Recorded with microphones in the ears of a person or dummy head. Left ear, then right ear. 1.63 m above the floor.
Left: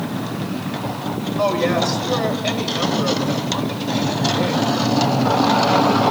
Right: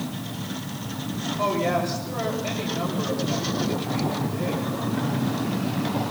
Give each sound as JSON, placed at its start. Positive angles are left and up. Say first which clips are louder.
{"t": 1.4, "sound": "a woman speaking", "louder": "left 5 dB", "side_deg": 85, "distance_m": 9.0}